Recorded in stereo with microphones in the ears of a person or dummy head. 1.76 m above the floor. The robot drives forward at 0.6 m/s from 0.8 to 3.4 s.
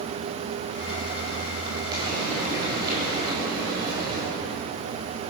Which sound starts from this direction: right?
Frying, at 1.9 s.